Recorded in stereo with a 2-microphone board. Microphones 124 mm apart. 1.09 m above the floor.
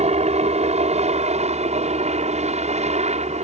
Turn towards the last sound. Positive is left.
turn(degrees=-65)  # may be behind; listen again after turning